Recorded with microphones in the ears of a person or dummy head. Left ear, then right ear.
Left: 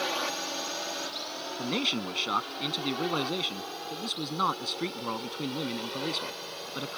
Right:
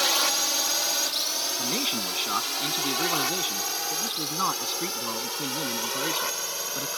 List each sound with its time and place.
0.0 s a drone: 65° right (ahead or behind); by 7.0 s 50° right (ahead or behind)
1.6 s a man speaking: 10° right (ahead or behind)